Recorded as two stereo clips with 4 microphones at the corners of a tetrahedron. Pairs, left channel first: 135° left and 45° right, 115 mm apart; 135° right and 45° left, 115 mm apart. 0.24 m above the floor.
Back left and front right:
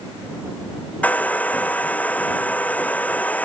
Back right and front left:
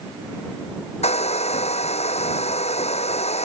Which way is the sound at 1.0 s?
150° right.